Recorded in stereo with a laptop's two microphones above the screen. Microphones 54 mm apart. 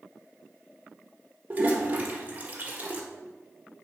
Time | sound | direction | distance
1.5 | a toilet flushing | 30° right (ahead or behind) | 1.4 m